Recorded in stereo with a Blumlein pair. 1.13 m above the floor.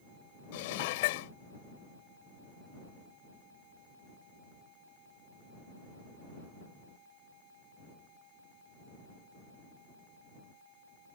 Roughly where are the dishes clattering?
Ahead left.